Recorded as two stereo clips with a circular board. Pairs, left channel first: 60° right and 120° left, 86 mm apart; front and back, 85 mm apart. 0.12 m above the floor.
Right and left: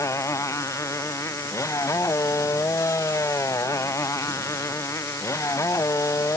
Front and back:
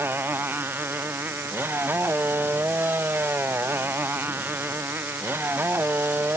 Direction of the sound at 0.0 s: 115° right.